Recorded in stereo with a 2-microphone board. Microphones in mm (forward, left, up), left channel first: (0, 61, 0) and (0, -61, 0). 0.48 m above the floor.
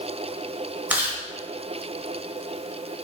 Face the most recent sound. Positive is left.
turn(degrees=-15)  # may be behind; listen again after turning